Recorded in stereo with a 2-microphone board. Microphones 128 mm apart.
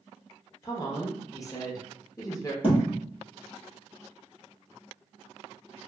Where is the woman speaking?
25° left (ahead or behind), 0.6 m.